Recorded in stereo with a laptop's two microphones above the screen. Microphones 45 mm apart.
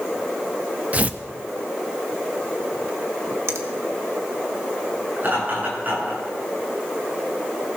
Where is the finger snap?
75° right (ahead or behind), 1.4 m.